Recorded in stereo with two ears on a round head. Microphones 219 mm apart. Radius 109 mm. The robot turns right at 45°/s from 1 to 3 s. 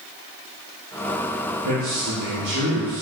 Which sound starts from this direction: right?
A man speaking, at 1.6 s.